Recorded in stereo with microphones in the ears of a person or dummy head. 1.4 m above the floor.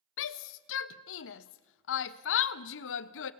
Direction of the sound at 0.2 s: 70° left (ahead or behind).